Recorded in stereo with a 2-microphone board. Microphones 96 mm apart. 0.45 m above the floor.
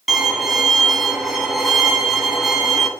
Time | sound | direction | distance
0.1 | a violin | 5° right (ahead or behind) | 0.8 m